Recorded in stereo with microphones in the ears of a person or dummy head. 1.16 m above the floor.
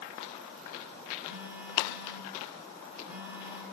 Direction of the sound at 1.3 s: 5° right (ahead or behind).